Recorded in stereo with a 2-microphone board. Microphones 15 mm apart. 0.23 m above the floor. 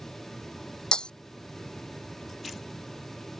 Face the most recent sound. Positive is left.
turn(degrees=90)